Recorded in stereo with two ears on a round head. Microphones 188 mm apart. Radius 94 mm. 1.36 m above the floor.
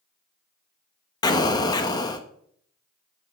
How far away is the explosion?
About 1.0 m.